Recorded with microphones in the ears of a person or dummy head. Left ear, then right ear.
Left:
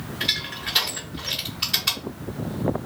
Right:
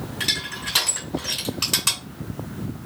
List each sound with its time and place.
0.2 s crushing: 40° right (ahead or behind), 1.7 m